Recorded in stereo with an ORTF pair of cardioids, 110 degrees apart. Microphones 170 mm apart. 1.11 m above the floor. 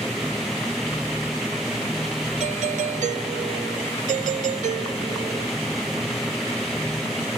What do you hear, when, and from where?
0.0 s a machine running: straight ahead
2.4 s a doorbell: 50° right